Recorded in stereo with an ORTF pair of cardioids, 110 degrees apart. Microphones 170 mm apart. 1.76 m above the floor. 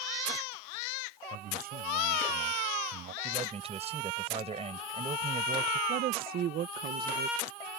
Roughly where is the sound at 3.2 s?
Ahead right.